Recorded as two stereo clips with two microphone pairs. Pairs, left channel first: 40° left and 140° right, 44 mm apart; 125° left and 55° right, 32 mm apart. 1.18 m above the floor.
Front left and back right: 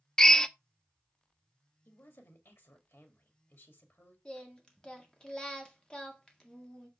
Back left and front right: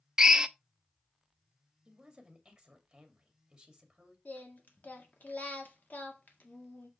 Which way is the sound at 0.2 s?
10° right.